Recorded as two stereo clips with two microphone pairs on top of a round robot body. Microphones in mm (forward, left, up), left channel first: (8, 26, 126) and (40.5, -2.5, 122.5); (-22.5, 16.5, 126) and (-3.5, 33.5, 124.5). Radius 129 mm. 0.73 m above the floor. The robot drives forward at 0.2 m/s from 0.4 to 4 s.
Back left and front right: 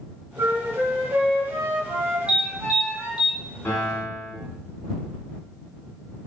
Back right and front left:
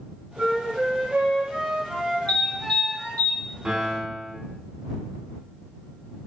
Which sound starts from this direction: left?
A piano, at 3.6 s.